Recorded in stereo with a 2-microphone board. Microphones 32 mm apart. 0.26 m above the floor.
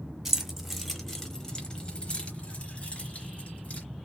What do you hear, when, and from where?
0.2 s keys jangling: 10° right (ahead or behind), 1.1 m; by 3.8 s 45° left (ahead or behind), 1.8 m